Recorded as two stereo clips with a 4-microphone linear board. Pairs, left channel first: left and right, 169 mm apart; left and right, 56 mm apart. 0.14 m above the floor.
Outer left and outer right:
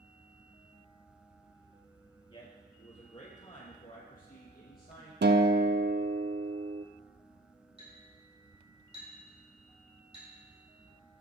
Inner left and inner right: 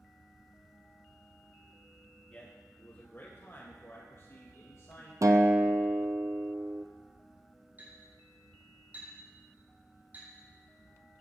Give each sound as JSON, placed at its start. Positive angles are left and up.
{"t": 2.3, "sound": "a man speaking", "side_deg": 30, "distance_m": 2.5}
{"t": 5.2, "sound": "a guitar", "side_deg": -80, "distance_m": 0.7}
{"t": 7.8, "sound": "a clink", "side_deg": -35, "distance_m": 4.5}